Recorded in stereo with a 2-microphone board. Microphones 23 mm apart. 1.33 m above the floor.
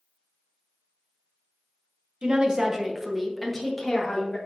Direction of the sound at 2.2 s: 45° right (ahead or behind).